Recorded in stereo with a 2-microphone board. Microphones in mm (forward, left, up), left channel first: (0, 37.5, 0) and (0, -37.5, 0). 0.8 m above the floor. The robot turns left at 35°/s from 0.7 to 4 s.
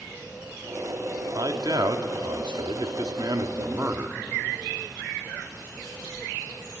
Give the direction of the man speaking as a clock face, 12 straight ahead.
2 o'clock.